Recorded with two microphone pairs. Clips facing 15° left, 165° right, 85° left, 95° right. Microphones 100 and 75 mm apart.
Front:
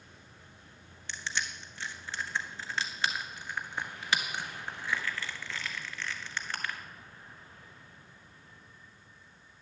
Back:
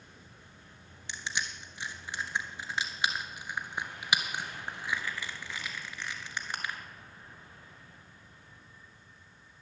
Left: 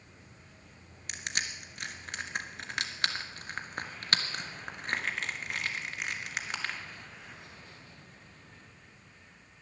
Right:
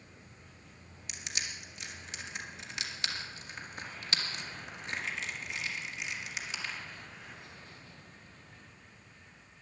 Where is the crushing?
120° left, 1.5 m.